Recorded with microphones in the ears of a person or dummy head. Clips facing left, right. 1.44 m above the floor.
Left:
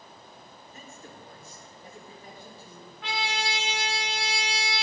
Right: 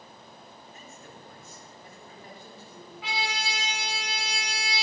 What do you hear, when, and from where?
0.7 s a man speaking: 45° left (ahead or behind), 2.5 m; by 2.9 s 10° left (ahead or behind), 3.5 m
3.0 s a trumpet: centre (ahead or behind), 0.9 m